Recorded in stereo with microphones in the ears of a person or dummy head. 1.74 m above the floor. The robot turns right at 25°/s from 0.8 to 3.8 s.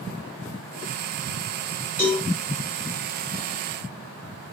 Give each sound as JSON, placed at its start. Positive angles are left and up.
{"t": 2.0, "sound": "a cowbell", "side_deg": 10, "distance_m": 5.5}